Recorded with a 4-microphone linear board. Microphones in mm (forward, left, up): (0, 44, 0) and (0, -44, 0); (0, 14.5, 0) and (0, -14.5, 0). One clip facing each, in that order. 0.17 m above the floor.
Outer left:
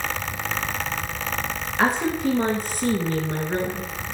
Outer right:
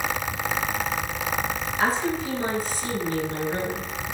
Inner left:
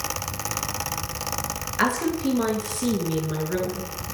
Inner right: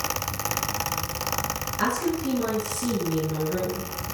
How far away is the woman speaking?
About 2.5 m.